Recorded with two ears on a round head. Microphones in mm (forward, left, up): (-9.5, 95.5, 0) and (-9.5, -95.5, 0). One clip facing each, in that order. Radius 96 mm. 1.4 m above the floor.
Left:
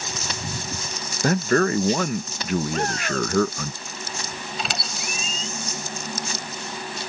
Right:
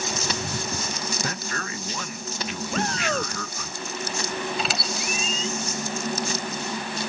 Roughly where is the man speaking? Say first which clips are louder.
Left 13 dB; left.